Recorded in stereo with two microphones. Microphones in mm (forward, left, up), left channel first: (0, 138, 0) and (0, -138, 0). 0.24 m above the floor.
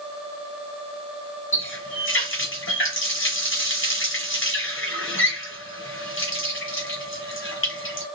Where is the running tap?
45° left (ahead or behind), 1.0 m.